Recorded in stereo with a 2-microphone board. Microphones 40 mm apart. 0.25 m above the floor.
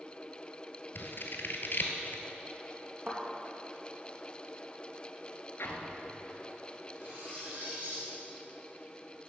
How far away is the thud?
About 3 m.